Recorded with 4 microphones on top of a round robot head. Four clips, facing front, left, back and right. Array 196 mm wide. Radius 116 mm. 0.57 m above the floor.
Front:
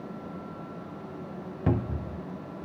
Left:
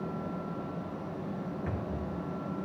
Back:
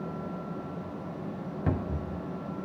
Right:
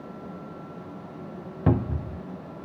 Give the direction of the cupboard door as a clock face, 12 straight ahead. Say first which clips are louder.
Right 9 dB, front 3 dB; 3 o'clock.